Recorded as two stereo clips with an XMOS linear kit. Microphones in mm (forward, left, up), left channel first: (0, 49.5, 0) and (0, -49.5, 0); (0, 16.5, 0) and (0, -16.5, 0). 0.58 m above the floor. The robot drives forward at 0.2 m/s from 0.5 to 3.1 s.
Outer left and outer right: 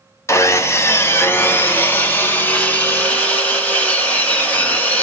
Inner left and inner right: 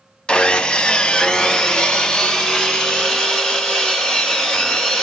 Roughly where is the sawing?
Left.